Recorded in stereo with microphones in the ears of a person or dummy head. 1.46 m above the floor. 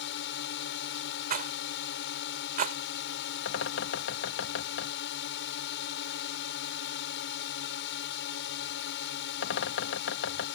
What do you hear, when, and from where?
0.0 s a drone: 70° left (ahead or behind)
1.3 s a rattle: 50° right (ahead or behind)
3.5 s a bird: 80° left